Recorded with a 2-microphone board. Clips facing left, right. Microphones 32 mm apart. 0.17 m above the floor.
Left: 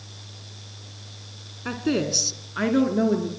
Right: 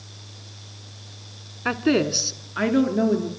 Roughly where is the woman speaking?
Right.